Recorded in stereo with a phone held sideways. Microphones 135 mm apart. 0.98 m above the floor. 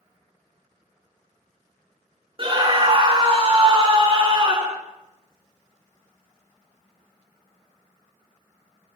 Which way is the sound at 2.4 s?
40° right (ahead or behind).